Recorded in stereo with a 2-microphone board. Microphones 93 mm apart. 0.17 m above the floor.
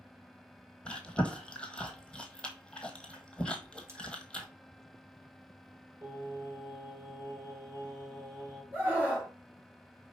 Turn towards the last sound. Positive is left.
turn(degrees=-20)  # may be behind; listen again after turning